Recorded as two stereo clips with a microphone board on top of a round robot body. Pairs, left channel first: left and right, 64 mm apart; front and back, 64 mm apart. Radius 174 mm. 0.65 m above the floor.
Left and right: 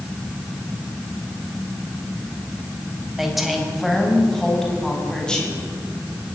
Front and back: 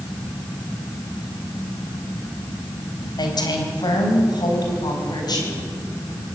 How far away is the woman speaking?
About 4.5 m.